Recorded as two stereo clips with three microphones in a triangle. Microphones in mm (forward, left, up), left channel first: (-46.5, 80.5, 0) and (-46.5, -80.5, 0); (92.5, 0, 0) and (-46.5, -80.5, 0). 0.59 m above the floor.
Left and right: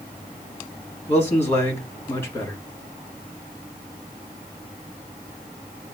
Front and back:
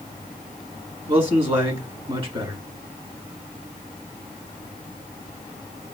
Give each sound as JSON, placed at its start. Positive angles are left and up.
{"t": 1.1, "sound": "a man speaking", "azimuth_deg": 160, "distance_m": 1.9}